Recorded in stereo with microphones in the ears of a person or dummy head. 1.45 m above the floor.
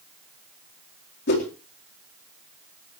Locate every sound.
1.3 s a whoosh: 65° left (ahead or behind), 4 m